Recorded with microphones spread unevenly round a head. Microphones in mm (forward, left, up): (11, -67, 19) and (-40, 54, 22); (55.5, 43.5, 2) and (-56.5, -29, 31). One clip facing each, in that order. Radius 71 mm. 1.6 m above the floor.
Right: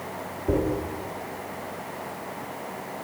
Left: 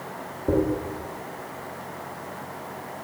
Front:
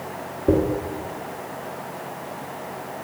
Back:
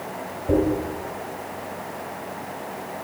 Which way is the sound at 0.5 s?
55° left.